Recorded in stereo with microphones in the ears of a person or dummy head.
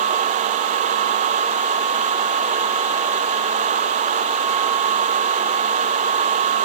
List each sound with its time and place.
Only background noise.